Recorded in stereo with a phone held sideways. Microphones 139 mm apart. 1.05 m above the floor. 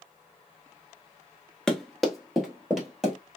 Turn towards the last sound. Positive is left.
turn(degrees=-5)  # may be behind; listen again after turning